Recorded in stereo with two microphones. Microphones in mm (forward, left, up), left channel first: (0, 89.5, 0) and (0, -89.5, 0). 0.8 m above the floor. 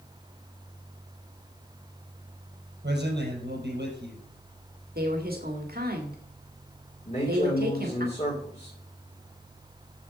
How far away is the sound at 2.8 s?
About 5 m.